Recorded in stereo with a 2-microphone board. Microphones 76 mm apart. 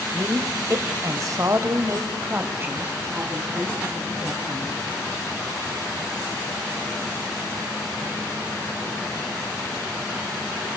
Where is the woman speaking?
35° right (ahead or behind), 2 m; by 4.8 s 15° right (ahead or behind), 4.5 m.